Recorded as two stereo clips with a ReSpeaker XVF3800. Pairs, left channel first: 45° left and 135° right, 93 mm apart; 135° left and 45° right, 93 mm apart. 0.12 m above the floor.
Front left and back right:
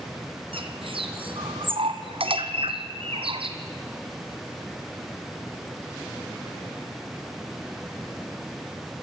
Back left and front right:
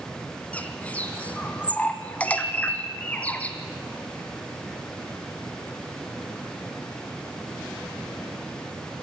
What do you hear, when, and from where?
0.5 s a bird: 150° right, 1.2 m